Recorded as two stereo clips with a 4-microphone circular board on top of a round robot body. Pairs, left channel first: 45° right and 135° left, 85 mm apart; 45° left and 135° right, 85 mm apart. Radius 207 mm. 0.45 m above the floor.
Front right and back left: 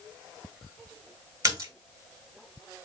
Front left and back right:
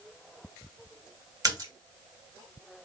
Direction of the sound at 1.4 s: Straight behind.